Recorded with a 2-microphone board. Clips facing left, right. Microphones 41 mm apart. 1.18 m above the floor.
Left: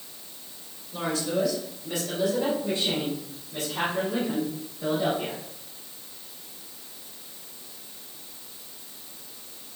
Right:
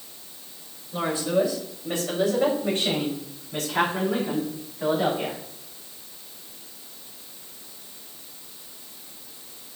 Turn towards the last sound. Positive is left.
turn(degrees=-75)  # may be behind; listen again after turning